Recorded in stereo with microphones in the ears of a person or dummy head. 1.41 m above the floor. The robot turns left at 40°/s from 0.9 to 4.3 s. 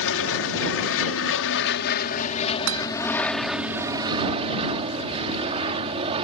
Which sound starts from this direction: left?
An aircraft, at 0.0 s.